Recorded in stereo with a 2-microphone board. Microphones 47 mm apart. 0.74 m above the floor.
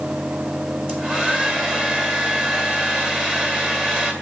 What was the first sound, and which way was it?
A hair dryer, 30° right (ahead or behind).